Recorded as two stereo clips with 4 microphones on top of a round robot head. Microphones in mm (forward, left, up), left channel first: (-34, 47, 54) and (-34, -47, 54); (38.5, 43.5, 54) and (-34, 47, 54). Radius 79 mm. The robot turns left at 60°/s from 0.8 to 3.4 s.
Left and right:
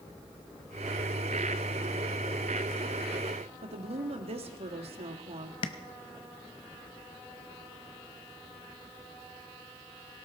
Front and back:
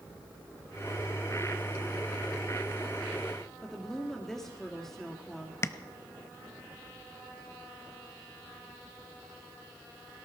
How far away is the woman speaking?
About 1.9 m.